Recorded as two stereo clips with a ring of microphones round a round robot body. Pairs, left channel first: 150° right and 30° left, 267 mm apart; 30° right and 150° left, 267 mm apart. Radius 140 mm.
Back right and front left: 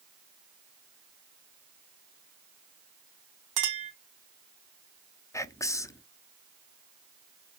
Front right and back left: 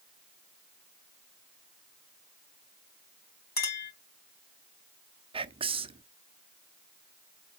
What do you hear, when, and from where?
3.6 s a clink: 25° left, 2.5 m
5.3 s whispering: 155° left, 0.8 m